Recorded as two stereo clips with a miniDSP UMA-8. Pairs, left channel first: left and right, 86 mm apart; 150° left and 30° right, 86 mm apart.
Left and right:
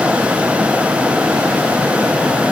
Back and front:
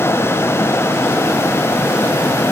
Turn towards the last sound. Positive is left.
No sound to turn to.